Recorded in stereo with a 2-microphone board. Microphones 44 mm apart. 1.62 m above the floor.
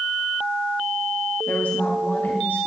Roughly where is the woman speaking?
Left.